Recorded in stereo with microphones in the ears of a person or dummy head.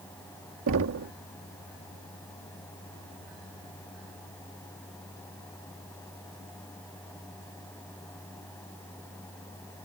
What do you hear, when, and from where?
0.7 s knocking: 70° right (ahead or behind)